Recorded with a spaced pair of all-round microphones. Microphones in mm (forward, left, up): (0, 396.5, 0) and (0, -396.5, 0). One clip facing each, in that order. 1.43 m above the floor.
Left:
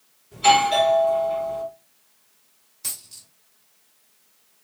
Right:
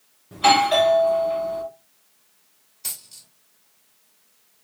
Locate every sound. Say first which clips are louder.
0.3 s a doorbell: right 1 dB; 75° right (ahead or behind), 1.8 m
2.8 s a dropped coin: left 2 dB; 45° left (ahead or behind), 1.8 m